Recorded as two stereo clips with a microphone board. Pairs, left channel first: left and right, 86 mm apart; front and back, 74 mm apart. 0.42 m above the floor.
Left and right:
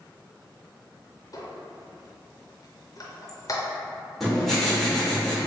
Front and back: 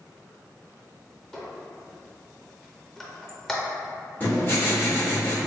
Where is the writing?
5° left, 1.2 m.